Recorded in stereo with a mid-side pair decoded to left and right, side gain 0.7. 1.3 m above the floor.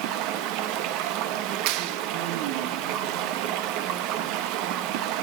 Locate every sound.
0.0 s running water: 70° right, 1.0 m
1.7 s a clap: 70° right, 0.6 m